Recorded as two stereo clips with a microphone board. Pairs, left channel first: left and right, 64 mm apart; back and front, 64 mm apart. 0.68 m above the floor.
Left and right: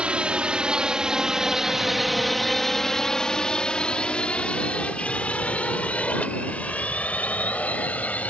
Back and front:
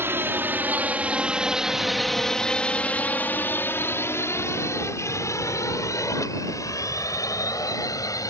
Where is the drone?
25° right; by 8.3 s 155° left.